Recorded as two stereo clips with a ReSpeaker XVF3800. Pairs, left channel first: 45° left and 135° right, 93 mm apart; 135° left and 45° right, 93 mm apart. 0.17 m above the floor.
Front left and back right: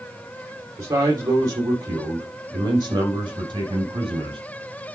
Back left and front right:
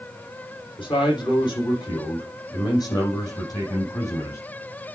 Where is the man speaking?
170° left, 6.5 m; by 4.4 s 170° right, 6 m.